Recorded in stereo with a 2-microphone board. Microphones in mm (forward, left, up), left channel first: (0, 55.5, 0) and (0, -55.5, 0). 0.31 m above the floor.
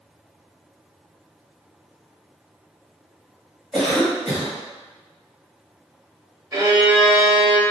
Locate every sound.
3.7 s a cough: centre (ahead or behind), 2.0 m
6.5 s a violin: 30° right (ahead or behind), 0.8 m